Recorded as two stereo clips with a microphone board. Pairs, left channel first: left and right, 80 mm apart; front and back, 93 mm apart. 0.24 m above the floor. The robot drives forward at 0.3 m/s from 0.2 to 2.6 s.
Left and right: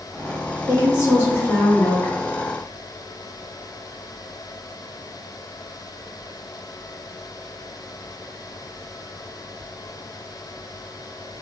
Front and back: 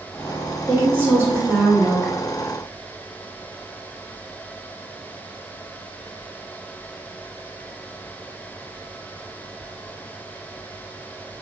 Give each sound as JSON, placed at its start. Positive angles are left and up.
{"t": 0.7, "sound": "a woman speaking", "azimuth_deg": 120, "distance_m": 1.2}